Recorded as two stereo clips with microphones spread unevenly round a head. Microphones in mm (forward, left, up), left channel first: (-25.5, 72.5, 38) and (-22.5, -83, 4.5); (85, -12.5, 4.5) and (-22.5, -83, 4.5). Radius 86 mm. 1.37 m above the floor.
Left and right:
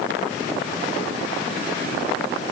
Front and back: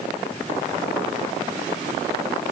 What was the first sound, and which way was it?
Only background noise.